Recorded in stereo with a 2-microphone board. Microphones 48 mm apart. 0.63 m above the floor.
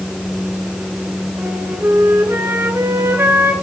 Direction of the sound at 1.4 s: 75° right (ahead or behind).